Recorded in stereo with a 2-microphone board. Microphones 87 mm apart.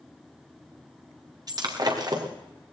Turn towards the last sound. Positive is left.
turn(degrees=-50)  # may be behind; listen again after turning